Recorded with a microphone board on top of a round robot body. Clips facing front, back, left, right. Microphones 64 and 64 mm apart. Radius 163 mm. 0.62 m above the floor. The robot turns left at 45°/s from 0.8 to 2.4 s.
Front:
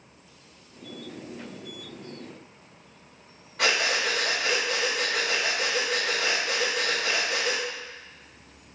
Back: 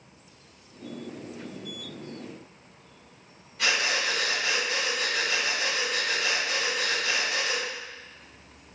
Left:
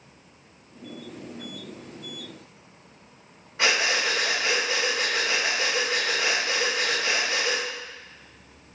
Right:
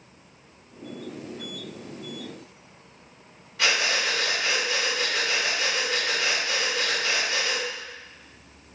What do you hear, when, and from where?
3.6 s breathing: 30° left, 3.5 m